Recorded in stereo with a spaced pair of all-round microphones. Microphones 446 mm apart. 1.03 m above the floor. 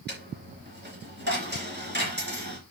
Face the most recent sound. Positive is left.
turn(degrees=-20)  # may be behind; listen again after turning